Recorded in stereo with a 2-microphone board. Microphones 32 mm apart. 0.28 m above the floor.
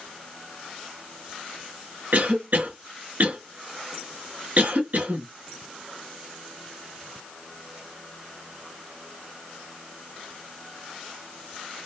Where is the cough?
55° right (ahead or behind), 2.0 m.